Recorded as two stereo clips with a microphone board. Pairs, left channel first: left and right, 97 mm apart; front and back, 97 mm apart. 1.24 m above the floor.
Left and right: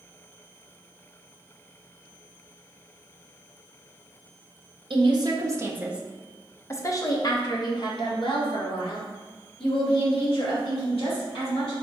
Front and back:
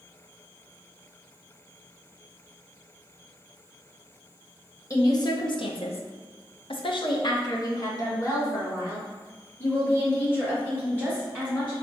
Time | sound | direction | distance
4.9 | a woman speaking | 55° right | 0.8 m